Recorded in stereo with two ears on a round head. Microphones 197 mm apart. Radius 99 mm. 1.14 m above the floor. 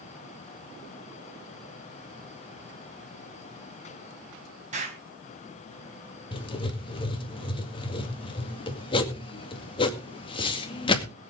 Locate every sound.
4.7 s an explosion: 35° right (ahead or behind), 4.5 m
6.3 s writing: 25° left (ahead or behind), 2.0 m